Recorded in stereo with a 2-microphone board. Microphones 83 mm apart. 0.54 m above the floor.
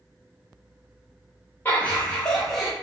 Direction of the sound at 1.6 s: 25° left (ahead or behind).